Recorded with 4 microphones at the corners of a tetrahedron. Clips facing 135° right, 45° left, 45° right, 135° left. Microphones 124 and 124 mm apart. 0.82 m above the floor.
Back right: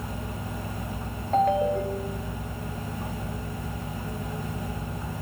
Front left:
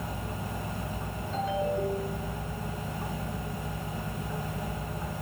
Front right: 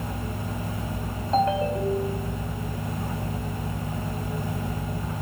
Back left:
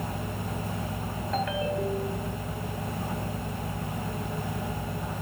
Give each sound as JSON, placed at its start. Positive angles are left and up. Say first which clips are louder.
{"t": 1.3, "sound": "a ringtone", "louder": "back right 7 dB, front right 7 dB", "azimuth_deg": -105, "distance_m": 3.0}